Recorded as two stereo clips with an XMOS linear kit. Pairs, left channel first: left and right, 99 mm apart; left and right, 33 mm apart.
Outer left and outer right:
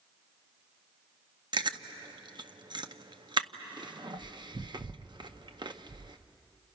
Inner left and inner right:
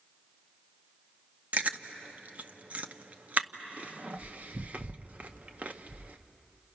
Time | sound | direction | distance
1.5 | chewing | 50° right (ahead or behind) | 0.7 m